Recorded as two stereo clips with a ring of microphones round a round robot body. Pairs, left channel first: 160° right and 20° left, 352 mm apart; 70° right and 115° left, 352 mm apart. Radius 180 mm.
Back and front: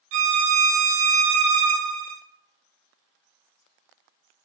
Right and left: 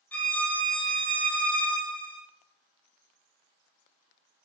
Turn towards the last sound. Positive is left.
turn(degrees=20)